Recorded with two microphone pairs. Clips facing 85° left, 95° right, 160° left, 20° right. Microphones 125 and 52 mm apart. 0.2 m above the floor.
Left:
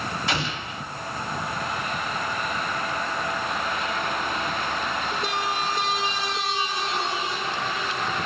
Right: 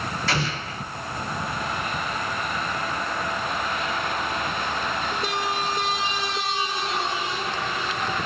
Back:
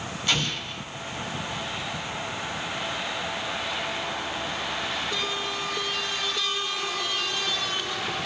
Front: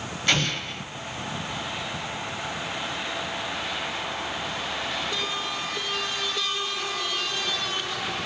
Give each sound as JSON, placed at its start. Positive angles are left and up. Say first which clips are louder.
{"t": 0.3, "sound": "an explosion", "louder": "right 1 dB, front 3 dB", "azimuth_deg": 10, "distance_m": 1.3}